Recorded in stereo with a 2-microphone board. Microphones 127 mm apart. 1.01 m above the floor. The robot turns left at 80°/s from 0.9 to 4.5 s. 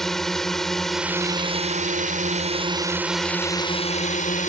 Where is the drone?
Straight ahead; by 4.5 s 75° left.